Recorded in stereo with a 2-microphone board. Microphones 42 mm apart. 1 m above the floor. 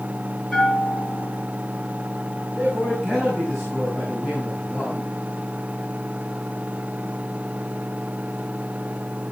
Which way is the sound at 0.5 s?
5° left (ahead or behind).